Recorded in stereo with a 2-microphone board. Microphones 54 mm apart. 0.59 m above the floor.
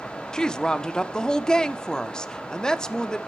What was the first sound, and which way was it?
A woman speaking, 15° left (ahead or behind).